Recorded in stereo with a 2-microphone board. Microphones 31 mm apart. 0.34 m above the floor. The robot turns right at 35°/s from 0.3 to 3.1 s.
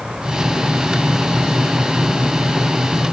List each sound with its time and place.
Only background noise.